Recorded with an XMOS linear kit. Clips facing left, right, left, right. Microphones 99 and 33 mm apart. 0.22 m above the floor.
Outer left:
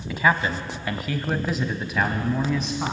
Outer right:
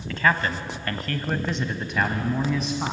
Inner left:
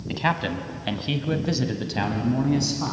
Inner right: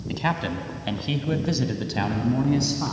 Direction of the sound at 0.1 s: 10° left (ahead or behind).